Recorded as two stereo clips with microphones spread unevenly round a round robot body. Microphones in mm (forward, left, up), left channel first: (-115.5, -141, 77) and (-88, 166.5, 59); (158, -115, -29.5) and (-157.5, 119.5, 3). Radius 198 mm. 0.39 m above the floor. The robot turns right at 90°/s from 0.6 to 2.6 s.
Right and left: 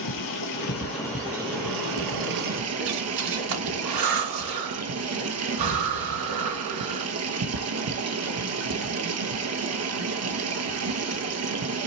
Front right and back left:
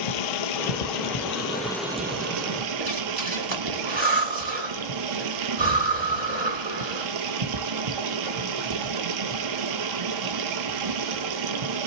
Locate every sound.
0.0 s running water: 55° right, 1.0 m; by 11.9 s 125° left, 1.0 m
2.8 s breathing: 70° left, 1.4 m